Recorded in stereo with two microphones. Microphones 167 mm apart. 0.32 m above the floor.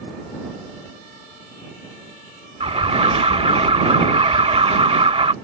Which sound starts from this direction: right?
An alarm, at 2.6 s.